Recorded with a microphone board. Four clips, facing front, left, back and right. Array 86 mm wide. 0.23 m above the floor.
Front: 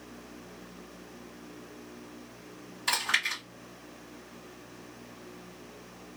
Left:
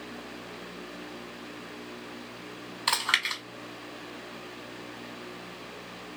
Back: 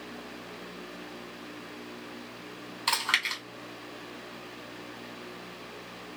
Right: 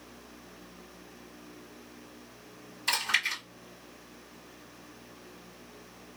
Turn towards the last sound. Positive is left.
turn(degrees=120)